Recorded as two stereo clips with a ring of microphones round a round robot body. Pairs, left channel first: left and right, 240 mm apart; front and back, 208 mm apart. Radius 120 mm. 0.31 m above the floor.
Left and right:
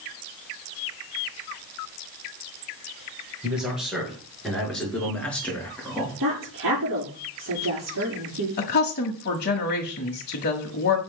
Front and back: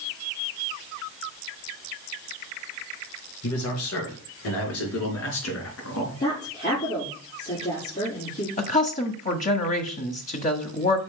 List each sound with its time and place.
3.4 s a man speaking: 5° right, 5.5 m; by 6.2 s 10° left, 4.5 m
6.2 s a woman speaking: 50° right, 6.5 m
8.6 s a woman speaking: 50° left, 1.6 m